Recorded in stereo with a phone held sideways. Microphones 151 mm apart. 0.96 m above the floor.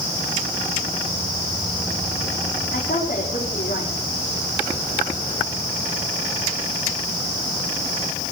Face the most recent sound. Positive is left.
turn(degrees=80)